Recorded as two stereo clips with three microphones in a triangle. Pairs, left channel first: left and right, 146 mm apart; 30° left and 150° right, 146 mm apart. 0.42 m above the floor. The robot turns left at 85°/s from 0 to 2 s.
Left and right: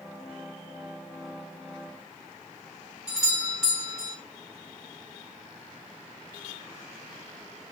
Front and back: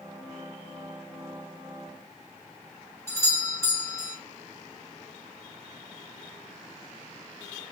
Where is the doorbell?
10° right, 1.2 m.